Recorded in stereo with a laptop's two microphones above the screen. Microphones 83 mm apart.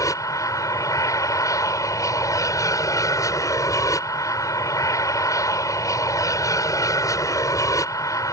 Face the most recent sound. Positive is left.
turn(degrees=45)  # may be behind; listen again after turning